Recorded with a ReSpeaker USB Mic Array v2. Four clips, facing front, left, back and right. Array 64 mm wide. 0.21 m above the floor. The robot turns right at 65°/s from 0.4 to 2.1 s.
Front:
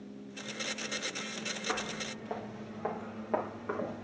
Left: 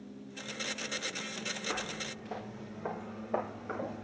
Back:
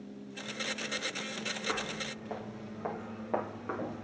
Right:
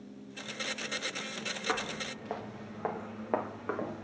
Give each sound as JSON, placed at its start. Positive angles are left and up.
{"t": 1.7, "sound": "footsteps", "azimuth_deg": -100, "distance_m": 2.5}